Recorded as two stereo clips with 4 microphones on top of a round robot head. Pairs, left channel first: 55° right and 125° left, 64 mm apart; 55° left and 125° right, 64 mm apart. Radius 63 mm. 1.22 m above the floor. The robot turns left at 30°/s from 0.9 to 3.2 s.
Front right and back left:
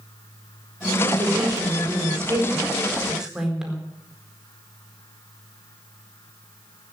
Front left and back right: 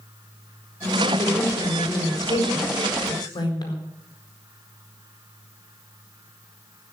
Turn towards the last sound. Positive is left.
turn(degrees=40)